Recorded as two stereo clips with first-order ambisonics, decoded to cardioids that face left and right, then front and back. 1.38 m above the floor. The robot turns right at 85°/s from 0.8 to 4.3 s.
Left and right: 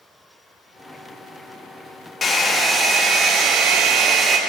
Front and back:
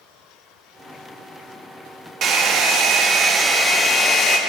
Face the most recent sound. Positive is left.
turn(degrees=-35)